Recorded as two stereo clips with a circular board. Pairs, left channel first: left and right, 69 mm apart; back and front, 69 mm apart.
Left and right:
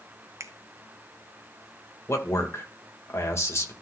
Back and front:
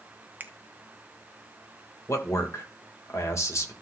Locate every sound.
0.4 s a finger snap: 55° right, 0.8 m
2.1 s a man speaking: 140° left, 2 m